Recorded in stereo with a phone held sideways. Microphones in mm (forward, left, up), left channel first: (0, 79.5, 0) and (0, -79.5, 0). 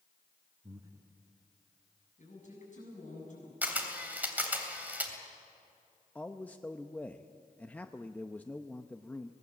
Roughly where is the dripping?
I don't hear dripping.